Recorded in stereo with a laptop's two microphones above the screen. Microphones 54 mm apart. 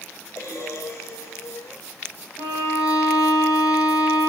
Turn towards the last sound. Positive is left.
turn(degrees=80)